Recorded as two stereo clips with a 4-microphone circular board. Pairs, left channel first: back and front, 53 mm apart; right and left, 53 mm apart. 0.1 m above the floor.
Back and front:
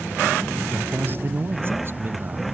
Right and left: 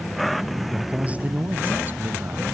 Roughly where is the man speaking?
Ahead left.